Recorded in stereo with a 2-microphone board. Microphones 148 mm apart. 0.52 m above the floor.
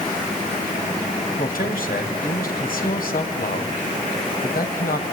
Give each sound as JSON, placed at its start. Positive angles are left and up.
{"t": 1.4, "sound": "a man speaking", "side_deg": 75, "distance_m": 3.5}